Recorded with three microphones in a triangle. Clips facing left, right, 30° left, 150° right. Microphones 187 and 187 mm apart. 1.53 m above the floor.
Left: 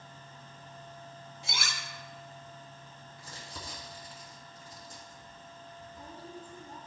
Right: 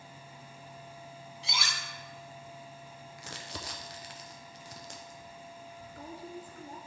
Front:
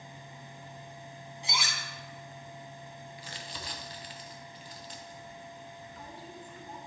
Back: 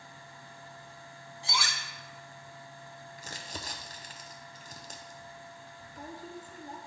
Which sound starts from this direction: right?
Crumpling, at 3.2 s.